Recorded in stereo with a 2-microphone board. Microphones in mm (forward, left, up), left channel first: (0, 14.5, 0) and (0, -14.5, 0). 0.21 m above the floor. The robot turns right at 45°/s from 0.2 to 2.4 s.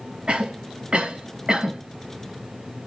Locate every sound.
0.3 s a cough: 40° right (ahead or behind), 1.8 m; by 1.8 s 25° right (ahead or behind), 1.8 m